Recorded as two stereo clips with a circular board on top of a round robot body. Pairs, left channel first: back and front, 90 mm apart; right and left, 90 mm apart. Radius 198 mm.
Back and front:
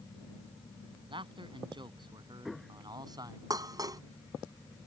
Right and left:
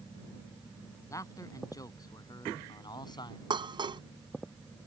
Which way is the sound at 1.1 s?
35° right.